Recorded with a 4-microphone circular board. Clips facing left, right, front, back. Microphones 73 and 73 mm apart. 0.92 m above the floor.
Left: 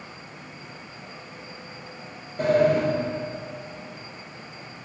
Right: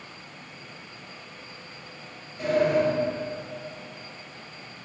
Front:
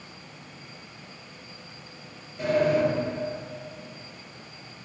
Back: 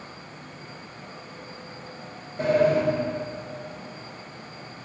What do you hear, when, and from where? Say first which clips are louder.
2.4 s a sliding door: left 3 dB, back 2 dB; 125° left, 4.5 m